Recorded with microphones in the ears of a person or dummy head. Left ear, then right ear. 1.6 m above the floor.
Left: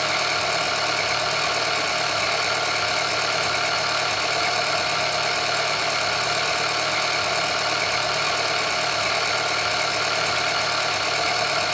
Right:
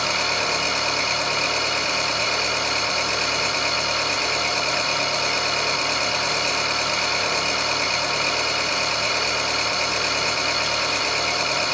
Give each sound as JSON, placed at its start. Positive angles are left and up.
{"t": 0.0, "sound": "an engine running", "side_deg": 55, "distance_m": 6.5}